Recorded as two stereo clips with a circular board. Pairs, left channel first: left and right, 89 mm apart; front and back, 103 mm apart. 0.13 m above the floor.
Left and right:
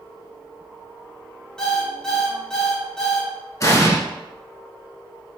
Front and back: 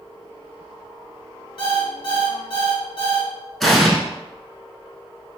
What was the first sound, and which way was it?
An alarm clock, 10° left.